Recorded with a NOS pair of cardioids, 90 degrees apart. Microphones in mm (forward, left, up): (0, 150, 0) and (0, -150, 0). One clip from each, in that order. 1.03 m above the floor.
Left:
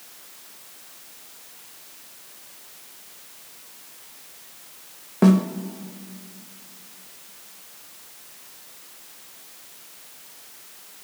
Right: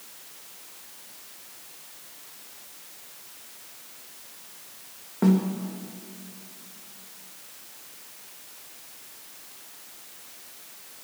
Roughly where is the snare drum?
Ahead left.